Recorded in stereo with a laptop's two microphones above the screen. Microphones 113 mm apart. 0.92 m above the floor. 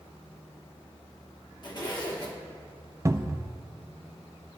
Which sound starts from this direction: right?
A cupboard door, at 3.0 s.